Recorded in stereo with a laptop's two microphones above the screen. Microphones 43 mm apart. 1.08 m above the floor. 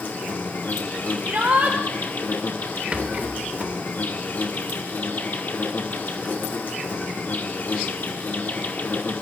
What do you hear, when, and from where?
0.0 s an insect: 55° left (ahead or behind), 1.1 m
1.2 s a shout: 60° right (ahead or behind), 1.3 m
2.9 s a rattle: 35° right (ahead or behind), 1.3 m